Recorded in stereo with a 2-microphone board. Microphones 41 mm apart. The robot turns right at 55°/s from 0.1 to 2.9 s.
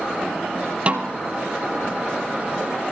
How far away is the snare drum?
About 1.4 m.